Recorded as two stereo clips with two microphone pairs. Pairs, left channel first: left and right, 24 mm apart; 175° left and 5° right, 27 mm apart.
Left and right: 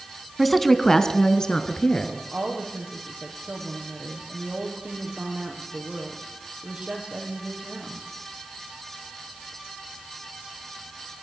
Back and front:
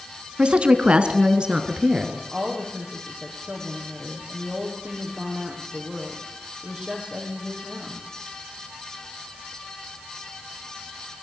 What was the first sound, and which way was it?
A woman speaking, 5° right.